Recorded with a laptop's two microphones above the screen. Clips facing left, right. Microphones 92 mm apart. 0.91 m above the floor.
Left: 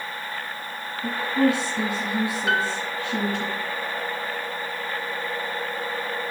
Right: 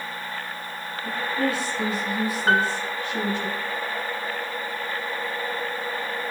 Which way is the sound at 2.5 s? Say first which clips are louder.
Right 5 dB; 40° right (ahead or behind).